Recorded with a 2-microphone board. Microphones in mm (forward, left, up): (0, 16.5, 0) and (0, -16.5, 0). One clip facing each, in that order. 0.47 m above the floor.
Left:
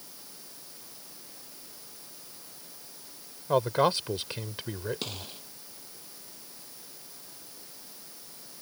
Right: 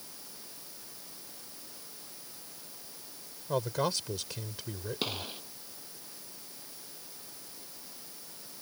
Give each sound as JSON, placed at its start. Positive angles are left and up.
{"t": 3.5, "sound": "a man speaking", "side_deg": 35}
{"t": 5.0, "sound": "a gunshot", "side_deg": -15}